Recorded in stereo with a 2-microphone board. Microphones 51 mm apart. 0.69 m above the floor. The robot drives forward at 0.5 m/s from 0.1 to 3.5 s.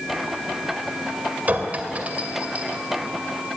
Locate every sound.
1.5 s a clink: 35° right (ahead or behind), 2 m; by 2.8 s 25° right (ahead or behind), 3 m